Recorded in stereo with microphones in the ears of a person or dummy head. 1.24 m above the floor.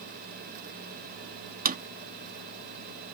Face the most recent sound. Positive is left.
turn(degrees=-45)  # may be behind; listen again after turning